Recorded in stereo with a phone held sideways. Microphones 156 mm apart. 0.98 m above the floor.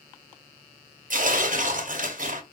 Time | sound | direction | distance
1.1 | tearing paper | 60° right (ahead or behind) | 0.7 m